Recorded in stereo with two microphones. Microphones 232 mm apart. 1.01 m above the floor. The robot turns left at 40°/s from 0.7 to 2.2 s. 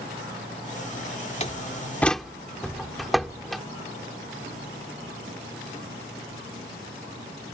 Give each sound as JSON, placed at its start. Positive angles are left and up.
{"t": 1.4, "sound": "a door slam", "side_deg": 30}